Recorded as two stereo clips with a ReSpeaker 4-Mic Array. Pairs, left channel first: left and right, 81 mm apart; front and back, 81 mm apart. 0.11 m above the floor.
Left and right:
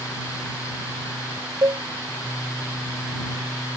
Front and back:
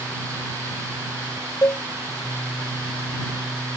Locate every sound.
1.6 s a cowbell: 50° right